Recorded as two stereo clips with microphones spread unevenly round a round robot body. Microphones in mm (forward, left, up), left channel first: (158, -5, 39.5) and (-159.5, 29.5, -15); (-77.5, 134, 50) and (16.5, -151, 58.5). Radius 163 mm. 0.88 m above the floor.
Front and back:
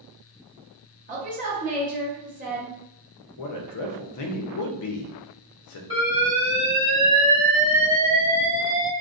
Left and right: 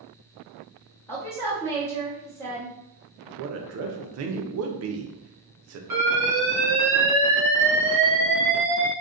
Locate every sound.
1.1 s a woman speaking: straight behind, 1.0 m
3.4 s a man speaking: 40° right, 0.5 m
5.9 s an alarm: 85° right, 1.2 m